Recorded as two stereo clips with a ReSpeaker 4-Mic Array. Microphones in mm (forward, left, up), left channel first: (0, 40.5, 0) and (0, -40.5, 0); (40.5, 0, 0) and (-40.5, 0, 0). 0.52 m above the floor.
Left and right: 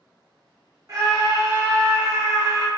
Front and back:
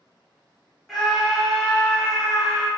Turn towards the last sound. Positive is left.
turn(degrees=-90)